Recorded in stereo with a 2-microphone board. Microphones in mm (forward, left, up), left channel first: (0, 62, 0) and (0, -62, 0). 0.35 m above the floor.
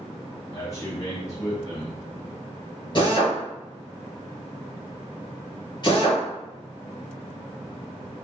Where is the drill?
35° left (ahead or behind), 1.8 m.